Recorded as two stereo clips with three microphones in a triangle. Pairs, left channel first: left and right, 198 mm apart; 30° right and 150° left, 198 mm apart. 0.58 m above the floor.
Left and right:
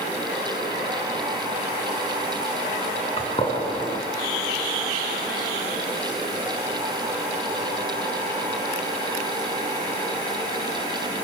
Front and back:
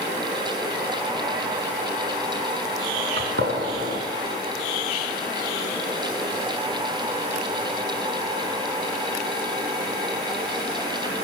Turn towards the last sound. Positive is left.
turn(degrees=150)